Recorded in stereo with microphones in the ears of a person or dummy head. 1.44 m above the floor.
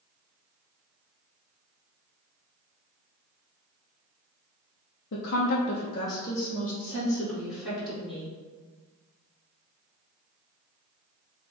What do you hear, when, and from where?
5.1 s a woman speaking: 60° left (ahead or behind), 0.5 m; by 8.3 s 10° right (ahead or behind), 1.9 m